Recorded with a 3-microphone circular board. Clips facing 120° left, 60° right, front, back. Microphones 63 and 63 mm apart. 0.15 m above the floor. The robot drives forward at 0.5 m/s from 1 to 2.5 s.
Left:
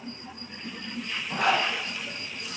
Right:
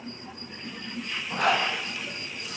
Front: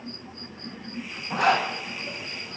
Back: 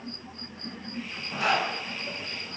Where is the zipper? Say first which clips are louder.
Even, front 4 dB; 30° left, 2 m; by 1.7 s 35° left, 2.0 m.